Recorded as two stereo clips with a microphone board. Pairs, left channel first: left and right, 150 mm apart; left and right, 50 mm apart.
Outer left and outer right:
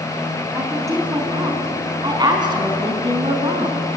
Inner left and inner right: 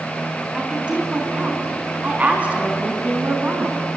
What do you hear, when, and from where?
0.5 s a woman speaking: 20° right (ahead or behind), 5.5 m; by 3.9 s 35° right (ahead or behind), 4.5 m